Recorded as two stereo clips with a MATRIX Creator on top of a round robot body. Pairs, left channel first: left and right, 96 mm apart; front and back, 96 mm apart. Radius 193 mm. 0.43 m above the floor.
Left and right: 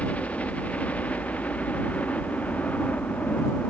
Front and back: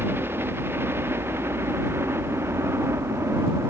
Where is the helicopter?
150° left.